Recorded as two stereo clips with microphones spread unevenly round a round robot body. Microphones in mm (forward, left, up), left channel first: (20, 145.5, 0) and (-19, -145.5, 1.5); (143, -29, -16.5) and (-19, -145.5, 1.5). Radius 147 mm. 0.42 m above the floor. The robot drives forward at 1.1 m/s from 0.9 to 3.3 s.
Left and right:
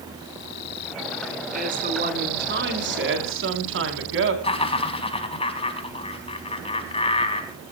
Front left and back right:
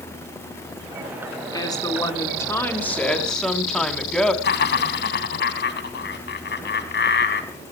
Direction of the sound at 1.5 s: 35° right.